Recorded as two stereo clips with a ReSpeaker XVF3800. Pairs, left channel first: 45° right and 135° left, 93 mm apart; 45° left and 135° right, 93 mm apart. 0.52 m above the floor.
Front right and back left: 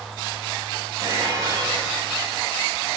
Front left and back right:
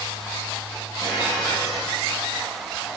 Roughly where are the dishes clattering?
Left.